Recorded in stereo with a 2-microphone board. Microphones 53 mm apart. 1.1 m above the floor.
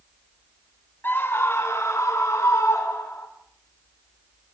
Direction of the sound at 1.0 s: 40° left (ahead or behind).